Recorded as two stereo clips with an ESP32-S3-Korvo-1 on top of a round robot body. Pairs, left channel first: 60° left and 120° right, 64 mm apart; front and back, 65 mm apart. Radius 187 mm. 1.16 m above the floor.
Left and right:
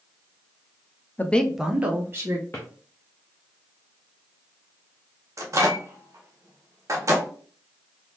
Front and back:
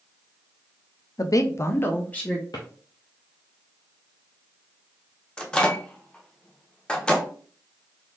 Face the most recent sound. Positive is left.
turn(degrees=-75)